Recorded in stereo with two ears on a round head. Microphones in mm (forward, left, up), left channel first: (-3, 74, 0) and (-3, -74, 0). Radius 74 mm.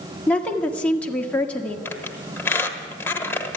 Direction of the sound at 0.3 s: 10° left (ahead or behind).